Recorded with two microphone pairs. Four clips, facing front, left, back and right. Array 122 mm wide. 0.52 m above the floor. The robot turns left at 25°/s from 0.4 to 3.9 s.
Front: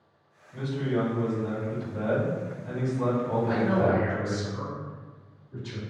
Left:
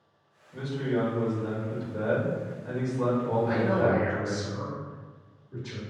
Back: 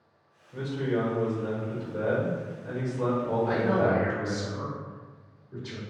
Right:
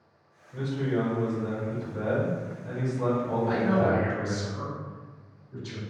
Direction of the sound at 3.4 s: 145° left.